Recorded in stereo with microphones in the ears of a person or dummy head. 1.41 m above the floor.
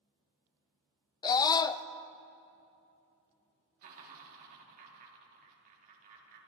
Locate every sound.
1.2 s a scream: 25° left (ahead or behind), 0.6 m
3.8 s laughter: 45° right (ahead or behind), 3.5 m